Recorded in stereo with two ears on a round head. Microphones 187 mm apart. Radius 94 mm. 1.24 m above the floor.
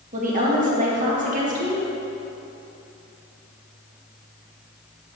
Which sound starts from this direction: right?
A woman speaking, at 0.1 s.